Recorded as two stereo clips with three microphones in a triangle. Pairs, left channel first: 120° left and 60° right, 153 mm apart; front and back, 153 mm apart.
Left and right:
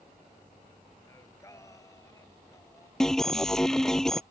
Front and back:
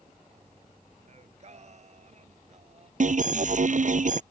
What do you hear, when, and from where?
1.1 s singing: straight behind
3.0 s an alarm: 155° right